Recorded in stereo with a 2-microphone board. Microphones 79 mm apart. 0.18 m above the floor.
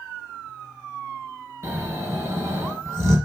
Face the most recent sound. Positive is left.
turn(degrees=-30)  # may be behind; listen again after turning